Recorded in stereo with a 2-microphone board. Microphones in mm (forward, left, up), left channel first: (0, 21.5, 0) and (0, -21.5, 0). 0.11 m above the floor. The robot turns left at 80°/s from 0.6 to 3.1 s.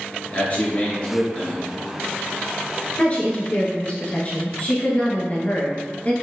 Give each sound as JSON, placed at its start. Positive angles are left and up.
{"t": 0.3, "sound": "a man speaking", "azimuth_deg": 80, "distance_m": 1.7}
{"t": 3.0, "sound": "a woman speaking", "side_deg": 30, "distance_m": 1.3}